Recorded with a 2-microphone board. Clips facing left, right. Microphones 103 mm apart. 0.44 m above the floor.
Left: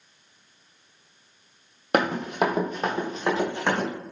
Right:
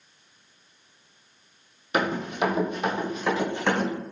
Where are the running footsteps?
65° left (ahead or behind), 0.9 m; by 3.9 s 15° left (ahead or behind), 1.5 m.